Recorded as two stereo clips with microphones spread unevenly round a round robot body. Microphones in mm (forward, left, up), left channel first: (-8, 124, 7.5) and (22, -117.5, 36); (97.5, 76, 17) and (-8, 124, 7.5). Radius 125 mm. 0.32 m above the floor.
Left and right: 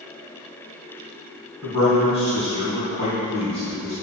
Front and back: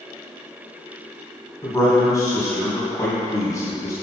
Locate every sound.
1.6 s a man speaking: 35° left, 3 m